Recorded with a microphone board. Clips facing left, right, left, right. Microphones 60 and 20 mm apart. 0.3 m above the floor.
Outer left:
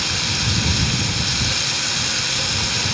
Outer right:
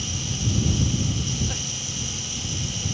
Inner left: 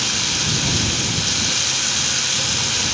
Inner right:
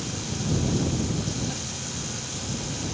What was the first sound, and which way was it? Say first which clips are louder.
Running water: outer left 6 dB, inner left 11 dB; 70° left (ahead or behind).